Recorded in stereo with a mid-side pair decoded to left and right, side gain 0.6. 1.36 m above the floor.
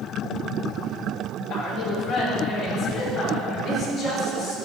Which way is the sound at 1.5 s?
50° left.